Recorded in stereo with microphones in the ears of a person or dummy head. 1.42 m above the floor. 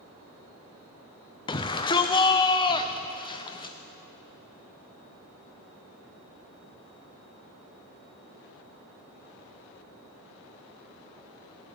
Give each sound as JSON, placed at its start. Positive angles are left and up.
{"t": 1.5, "sound": "a shout", "side_deg": 20, "distance_m": 0.6}